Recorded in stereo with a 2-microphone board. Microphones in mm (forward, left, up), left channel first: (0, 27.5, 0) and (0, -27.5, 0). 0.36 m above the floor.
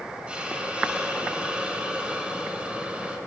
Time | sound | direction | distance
0.3 | a hiss | 20° right (ahead or behind) | 3 m